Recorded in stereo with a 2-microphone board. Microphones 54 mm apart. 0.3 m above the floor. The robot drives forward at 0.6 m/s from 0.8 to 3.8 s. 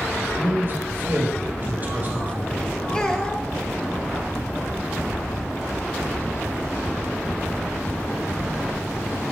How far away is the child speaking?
About 0.6 m.